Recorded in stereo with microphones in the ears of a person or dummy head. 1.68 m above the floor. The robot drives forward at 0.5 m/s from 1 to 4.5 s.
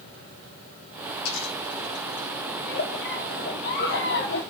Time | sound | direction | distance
1.2 | a dropped coin | 75° left (ahead or behind) | 6.5 m
2.6 | a giggle | 65° left (ahead or behind) | 5.5 m